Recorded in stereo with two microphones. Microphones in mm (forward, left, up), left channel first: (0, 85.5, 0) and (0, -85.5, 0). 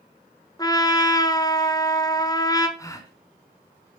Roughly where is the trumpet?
Left.